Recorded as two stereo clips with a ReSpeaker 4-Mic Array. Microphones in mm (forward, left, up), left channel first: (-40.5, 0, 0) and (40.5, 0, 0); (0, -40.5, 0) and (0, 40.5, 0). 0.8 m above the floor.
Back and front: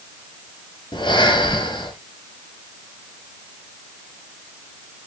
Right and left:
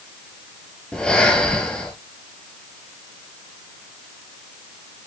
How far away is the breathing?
About 3.5 m.